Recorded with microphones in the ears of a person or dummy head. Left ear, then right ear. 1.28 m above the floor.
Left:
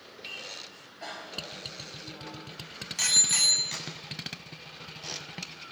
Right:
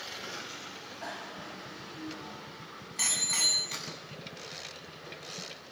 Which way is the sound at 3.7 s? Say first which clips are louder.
Left 2 dB; 40° left (ahead or behind).